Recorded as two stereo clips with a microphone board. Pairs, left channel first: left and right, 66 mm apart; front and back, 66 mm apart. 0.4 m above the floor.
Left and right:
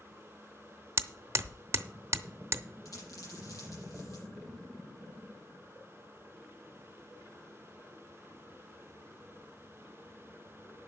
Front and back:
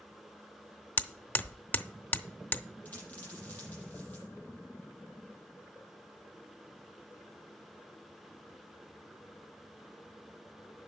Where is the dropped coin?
60° left, 7 m.